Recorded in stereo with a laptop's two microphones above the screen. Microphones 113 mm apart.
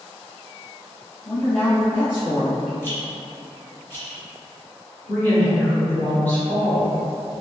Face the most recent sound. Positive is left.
turn(degrees=15)  # may be behind; listen again after turning